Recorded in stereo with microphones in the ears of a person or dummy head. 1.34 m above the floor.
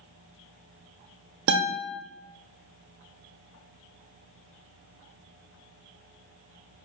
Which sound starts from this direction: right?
A guitar, at 1.5 s.